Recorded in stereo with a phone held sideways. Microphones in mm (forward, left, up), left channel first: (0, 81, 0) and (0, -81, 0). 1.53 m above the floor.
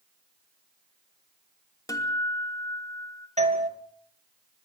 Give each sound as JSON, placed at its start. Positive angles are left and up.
{"t": 1.9, "sound": "a guitar", "side_deg": 20, "distance_m": 2.5}
{"t": 3.4, "sound": "a doorbell", "side_deg": -45, "distance_m": 2.0}